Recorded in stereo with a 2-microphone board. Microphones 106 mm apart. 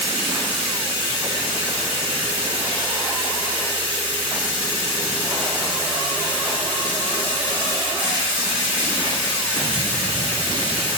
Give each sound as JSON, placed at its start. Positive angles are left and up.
{"t": 0.0, "sound": "running water", "side_deg": -50, "distance_m": 9.0}